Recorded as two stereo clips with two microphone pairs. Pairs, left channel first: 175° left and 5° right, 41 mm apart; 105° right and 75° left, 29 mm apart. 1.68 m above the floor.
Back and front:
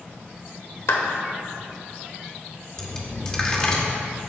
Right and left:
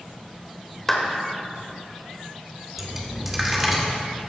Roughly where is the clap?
Behind.